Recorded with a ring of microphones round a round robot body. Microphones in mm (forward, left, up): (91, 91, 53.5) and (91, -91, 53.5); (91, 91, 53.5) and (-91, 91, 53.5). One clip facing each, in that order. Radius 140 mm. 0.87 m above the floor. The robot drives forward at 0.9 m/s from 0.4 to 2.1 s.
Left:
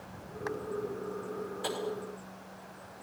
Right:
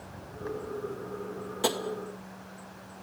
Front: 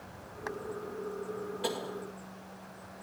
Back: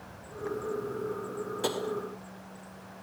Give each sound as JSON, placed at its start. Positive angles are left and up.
{"t": 1.6, "sound": "tapping", "azimuth_deg": -125, "distance_m": 1.8}